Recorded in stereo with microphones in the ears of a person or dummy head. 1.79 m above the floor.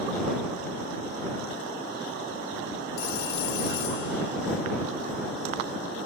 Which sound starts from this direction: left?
A phone ringing, at 3.0 s.